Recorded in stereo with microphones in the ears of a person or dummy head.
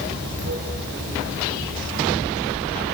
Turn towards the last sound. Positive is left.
turn(degrees=-65)  # may be behind; listen again after turning